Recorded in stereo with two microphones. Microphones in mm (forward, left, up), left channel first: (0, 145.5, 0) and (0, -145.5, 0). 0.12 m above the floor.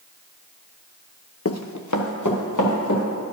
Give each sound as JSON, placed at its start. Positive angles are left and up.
{"t": 1.4, "sound": "running footsteps", "side_deg": 50, "distance_m": 0.6}